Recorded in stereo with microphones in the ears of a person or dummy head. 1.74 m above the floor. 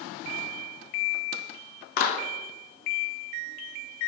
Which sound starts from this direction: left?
A clap, at 2.0 s.